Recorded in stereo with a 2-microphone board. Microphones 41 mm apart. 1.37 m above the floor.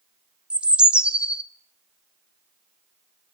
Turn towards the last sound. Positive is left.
turn(degrees=-25)  # may be behind; listen again after turning